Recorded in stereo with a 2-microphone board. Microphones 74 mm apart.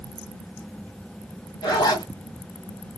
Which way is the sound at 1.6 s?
65° left (ahead or behind).